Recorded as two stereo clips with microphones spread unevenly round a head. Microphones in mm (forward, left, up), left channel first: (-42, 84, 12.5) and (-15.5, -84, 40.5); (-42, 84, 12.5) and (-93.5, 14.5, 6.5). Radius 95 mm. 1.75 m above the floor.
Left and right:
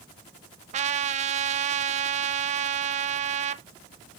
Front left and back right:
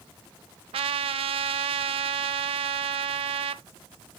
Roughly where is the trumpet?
Behind right.